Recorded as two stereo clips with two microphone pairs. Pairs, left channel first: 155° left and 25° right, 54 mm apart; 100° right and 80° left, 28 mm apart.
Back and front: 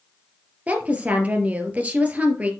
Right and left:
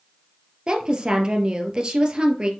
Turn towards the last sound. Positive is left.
turn(degrees=30)